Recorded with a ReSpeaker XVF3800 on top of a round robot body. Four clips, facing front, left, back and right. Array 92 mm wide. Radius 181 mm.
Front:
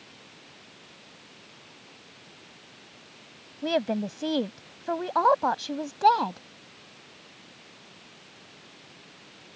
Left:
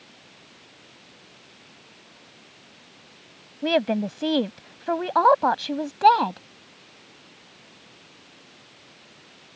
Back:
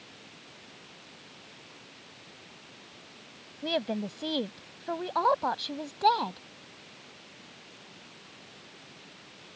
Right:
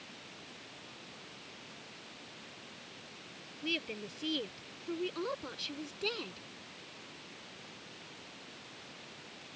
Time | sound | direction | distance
3.6 | a woman speaking | 75° left | ?